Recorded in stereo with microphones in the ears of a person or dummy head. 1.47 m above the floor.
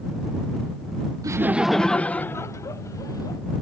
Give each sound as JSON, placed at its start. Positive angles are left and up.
{"t": 1.2, "sound": "laughter", "side_deg": -15}